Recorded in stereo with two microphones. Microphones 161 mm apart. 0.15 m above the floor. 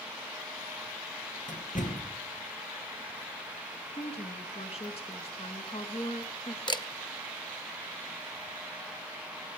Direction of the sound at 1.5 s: 55° left (ahead or behind).